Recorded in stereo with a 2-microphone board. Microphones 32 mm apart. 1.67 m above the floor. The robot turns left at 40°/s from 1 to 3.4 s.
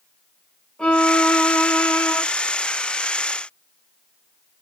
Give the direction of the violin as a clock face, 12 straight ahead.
7 o'clock.